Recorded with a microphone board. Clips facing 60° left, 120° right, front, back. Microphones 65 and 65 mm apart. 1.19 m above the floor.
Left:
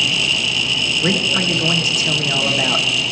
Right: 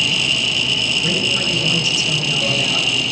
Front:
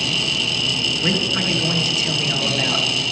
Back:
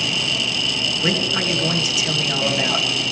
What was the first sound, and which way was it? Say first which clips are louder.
A man speaking: left 2 dB, back 1 dB; 100° left.